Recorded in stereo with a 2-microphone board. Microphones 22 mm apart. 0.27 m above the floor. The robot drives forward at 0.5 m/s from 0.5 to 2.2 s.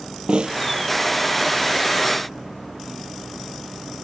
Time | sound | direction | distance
0.3 | a snare drum | 45° right (ahead or behind) | ?